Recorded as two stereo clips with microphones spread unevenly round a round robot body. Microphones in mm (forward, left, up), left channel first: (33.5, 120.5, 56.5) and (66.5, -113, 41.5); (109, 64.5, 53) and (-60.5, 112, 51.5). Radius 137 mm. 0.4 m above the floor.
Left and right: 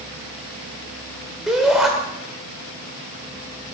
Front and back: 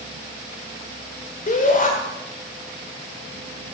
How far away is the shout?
About 1.7 m.